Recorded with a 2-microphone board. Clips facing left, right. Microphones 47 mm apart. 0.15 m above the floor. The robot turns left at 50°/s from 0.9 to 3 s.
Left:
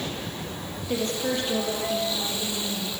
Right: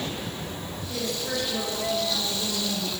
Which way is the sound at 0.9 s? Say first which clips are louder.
Left 4 dB; 70° left.